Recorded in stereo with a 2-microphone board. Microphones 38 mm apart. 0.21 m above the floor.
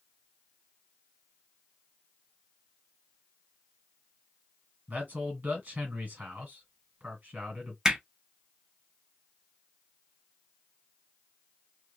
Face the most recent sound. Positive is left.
turn(degrees=-15)  # may be behind; listen again after turning